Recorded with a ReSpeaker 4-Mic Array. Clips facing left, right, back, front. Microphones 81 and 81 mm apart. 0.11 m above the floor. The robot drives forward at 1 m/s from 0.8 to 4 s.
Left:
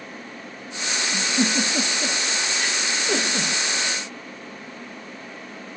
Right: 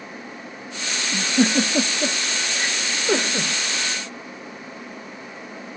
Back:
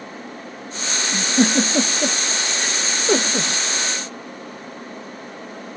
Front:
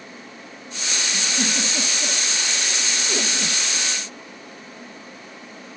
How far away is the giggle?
About 2.5 m.